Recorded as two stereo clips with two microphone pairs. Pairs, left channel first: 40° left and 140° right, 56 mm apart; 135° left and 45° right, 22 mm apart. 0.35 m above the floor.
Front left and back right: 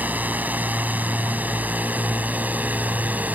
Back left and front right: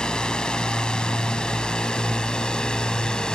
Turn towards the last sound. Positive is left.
turn(degrees=165)